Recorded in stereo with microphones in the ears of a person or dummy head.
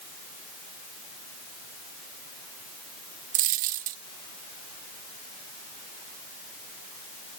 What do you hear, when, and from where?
3.3 s a dropped coin: 45° right (ahead or behind), 1.0 m